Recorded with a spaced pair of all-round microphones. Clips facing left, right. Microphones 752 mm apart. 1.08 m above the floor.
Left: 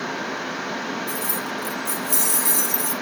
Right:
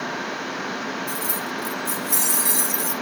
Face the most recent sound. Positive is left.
turn(degrees=10)  # may be behind; listen again after turning